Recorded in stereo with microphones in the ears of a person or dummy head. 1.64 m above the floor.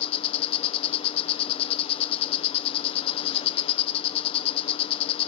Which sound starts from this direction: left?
An insect, at 0.0 s.